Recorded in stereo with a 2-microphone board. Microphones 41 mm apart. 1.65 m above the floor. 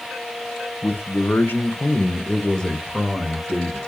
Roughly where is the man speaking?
Left.